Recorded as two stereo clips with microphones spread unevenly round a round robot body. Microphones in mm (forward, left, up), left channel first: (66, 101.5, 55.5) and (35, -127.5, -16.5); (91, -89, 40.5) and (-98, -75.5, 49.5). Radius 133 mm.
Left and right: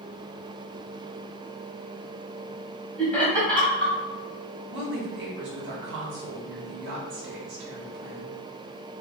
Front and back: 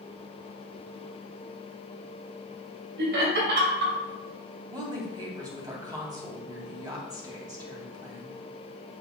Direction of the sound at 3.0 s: Straight behind.